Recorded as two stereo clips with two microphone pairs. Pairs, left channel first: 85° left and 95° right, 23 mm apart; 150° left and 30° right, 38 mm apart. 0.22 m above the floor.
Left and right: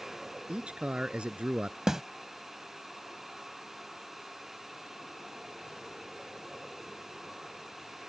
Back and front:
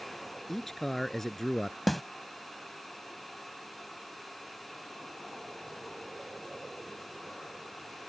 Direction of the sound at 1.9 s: 125° right.